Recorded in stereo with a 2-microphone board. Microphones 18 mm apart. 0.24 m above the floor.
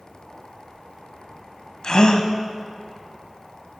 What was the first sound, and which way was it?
A gasp, 50° left (ahead or behind).